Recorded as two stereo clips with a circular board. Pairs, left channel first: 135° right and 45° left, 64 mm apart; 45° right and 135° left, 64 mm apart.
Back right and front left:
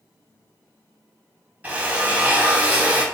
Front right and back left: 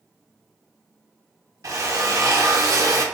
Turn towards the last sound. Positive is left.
turn(degrees=110)